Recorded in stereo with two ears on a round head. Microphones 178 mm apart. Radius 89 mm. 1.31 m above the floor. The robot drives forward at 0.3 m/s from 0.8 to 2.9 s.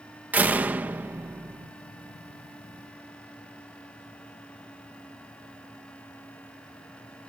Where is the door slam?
10° right (ahead or behind).